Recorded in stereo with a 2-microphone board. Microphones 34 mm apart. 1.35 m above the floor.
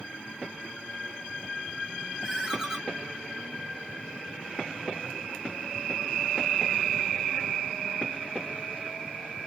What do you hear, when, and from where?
2.2 s a ringtone: 10° right (ahead or behind), 1.8 m